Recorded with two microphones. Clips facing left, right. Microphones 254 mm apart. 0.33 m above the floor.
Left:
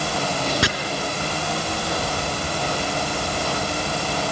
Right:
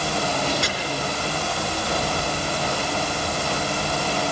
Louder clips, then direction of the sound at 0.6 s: Left 6 dB; 80° left.